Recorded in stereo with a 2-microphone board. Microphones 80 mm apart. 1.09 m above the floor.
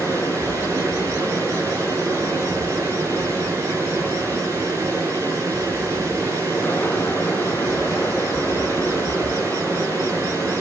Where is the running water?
30° right (ahead or behind), 6.5 m.